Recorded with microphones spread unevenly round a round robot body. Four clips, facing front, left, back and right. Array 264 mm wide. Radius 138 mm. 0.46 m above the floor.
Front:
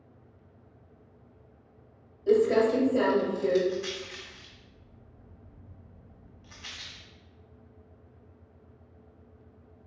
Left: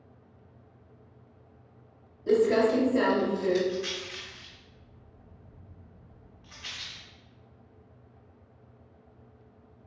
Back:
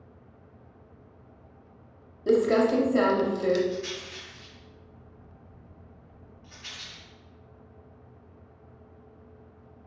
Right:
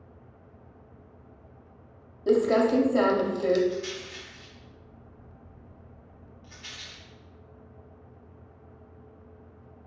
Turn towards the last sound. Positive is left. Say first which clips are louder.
# even, even
turn(degrees=-5)